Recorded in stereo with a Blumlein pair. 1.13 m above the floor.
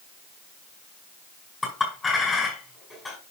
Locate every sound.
1.6 s a clink: 15° left, 5 m